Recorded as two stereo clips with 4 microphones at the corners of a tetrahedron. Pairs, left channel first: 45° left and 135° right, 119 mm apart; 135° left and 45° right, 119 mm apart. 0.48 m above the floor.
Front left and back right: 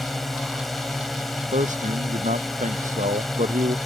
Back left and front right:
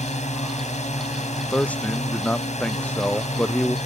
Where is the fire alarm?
No fire alarm in this recording.